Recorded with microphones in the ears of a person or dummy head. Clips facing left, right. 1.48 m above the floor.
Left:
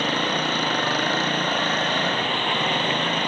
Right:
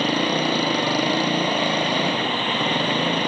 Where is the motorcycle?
15° right (ahead or behind).